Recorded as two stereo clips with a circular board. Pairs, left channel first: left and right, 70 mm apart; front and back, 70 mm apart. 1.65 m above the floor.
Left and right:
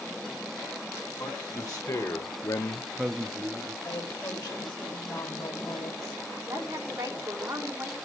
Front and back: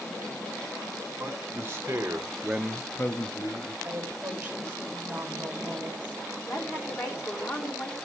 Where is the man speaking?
125° left, 2.5 m; by 3.7 s 40° right, 1.3 m.